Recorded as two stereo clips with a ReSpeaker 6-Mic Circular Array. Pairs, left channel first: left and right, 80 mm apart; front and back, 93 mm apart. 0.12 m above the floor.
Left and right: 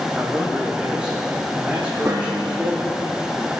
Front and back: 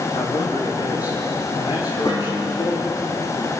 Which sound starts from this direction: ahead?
A man speaking, at 0.1 s.